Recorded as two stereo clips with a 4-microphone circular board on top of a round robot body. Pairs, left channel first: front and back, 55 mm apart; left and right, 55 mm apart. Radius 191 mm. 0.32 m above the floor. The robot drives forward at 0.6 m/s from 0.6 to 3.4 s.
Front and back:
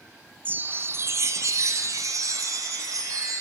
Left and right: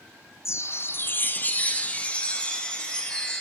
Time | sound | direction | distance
0.5 | a chime | 125° left | 0.7 m